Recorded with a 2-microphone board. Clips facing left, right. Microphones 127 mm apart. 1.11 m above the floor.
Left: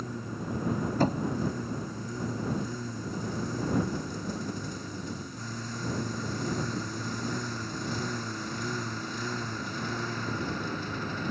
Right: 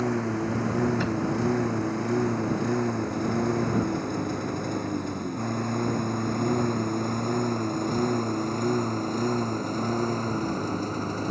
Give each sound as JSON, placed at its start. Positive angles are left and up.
{"t": 0.0, "sound": "a lawn mower", "side_deg": -75}
{"t": 1.0, "sound": "knocking", "side_deg": 40}